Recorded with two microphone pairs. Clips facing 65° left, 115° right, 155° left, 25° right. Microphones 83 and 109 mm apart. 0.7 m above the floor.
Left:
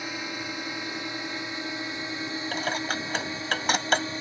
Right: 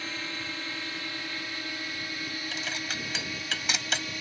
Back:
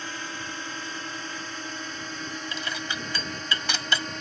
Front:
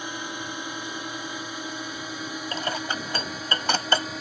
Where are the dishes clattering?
20° left.